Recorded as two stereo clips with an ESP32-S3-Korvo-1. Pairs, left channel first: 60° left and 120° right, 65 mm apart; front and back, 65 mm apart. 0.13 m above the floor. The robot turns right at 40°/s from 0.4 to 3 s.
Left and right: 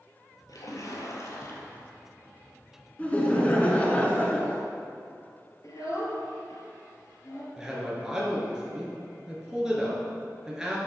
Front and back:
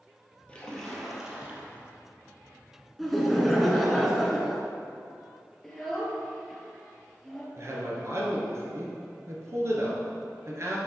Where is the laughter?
85° left, 1.1 m; by 4.6 s 90° left, 1.1 m.